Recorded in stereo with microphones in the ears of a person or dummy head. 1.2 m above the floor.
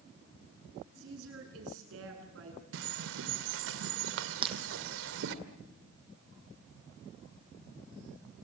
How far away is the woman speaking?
About 9 m.